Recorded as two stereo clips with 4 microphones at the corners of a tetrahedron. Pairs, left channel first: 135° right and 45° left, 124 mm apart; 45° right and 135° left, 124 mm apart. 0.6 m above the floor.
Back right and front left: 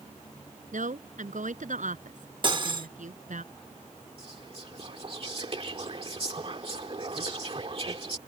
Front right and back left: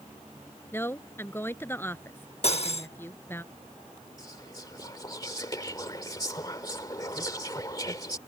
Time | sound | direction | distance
0.7 | a woman speaking | 30° left | ?
2.4 | cutlery clinking | 5° right | ?
4.2 | whispering | 10° left | ?